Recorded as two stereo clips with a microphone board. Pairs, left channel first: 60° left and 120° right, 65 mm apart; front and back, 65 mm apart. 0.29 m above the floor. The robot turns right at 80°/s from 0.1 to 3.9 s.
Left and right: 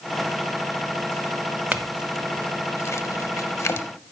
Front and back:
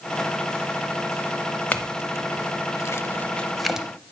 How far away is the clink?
About 0.6 m.